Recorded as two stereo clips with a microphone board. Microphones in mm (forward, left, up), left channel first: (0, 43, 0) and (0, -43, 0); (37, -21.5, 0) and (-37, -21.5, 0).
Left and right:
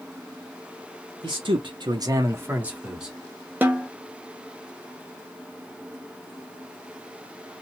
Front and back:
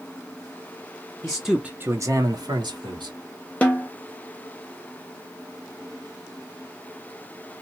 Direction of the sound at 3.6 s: 50° right.